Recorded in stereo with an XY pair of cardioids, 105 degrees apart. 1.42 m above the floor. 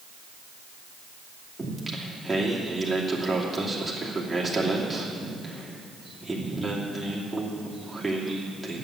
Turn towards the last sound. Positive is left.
turn(degrees=-5)